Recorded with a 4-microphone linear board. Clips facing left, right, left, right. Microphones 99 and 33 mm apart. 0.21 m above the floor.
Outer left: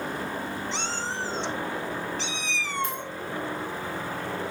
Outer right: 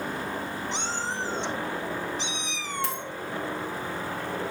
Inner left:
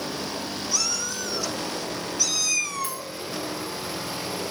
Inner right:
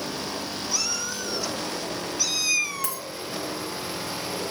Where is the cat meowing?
15° right (ahead or behind), 1.7 m.